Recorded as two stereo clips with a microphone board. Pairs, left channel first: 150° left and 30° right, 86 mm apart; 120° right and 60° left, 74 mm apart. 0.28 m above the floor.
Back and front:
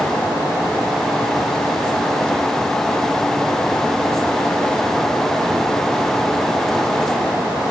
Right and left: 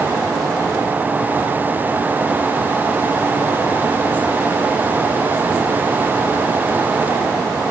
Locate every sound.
Only background noise.